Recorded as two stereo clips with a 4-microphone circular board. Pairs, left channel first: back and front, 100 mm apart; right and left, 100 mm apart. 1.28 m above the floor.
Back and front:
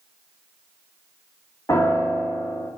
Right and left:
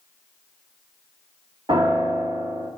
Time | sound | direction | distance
1.7 | a piano | 120° left | 2.5 m